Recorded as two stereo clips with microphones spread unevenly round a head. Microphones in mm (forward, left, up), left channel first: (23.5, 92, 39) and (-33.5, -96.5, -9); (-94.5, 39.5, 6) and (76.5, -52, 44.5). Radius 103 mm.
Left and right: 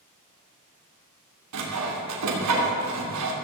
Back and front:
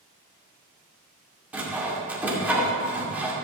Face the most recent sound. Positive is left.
turn(degrees=-105)